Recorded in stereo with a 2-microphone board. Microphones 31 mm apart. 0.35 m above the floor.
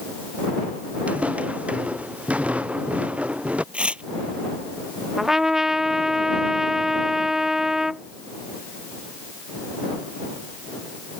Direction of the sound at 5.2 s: 15° right (ahead or behind).